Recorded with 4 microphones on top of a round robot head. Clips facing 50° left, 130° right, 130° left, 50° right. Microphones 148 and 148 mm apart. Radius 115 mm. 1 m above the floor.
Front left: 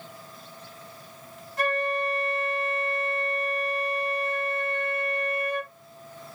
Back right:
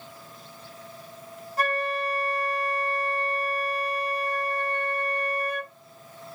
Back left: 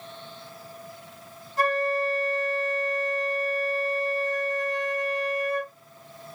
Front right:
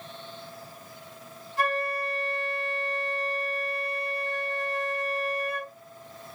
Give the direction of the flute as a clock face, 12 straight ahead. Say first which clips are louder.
Front left 1 dB, back left 4 dB; 6 o'clock.